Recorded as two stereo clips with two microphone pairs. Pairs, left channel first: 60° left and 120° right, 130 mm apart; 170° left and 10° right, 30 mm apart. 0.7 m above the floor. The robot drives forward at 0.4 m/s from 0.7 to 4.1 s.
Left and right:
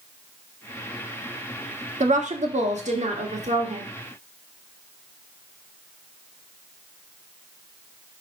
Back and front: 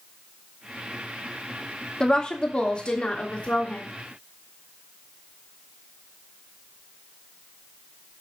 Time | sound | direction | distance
2.0 | a woman speaking | 125° right | 1.3 m